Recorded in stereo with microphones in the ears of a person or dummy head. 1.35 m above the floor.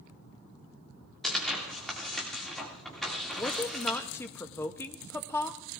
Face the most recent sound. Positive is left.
turn(degrees=5)  # may be behind; listen again after turning